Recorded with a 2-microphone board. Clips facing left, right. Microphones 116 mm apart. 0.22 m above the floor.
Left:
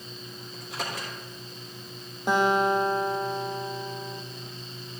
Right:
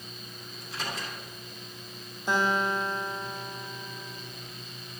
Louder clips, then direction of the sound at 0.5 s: Left 2 dB; 65° left (ahead or behind).